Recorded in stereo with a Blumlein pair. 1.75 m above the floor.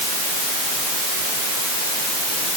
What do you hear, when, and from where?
Only background noise.